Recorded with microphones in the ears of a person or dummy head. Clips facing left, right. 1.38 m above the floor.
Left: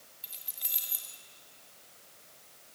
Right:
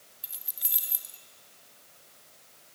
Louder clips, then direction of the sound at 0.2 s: Even; centre (ahead or behind).